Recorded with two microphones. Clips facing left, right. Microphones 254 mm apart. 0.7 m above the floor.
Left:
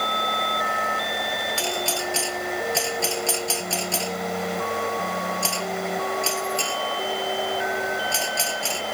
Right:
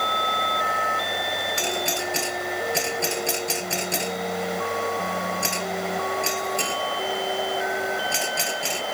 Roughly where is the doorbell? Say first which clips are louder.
Right 1 dB; centre.